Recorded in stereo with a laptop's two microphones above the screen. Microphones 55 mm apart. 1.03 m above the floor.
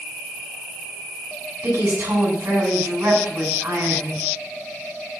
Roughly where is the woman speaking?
Right.